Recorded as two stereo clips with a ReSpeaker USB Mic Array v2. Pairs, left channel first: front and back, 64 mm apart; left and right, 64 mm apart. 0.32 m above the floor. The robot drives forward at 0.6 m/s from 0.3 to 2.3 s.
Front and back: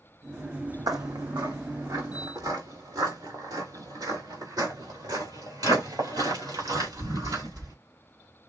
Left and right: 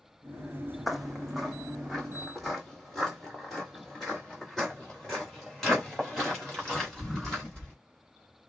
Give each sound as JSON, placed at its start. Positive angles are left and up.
{"t": 0.9, "sound": "footsteps", "azimuth_deg": 180, "distance_m": 0.8}